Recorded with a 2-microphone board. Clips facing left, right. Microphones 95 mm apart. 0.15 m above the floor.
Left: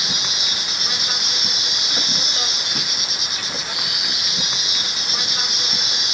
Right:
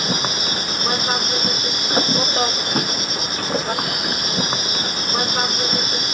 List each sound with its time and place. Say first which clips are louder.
0.0 s an insect: right 7 dB; 45° right (ahead or behind)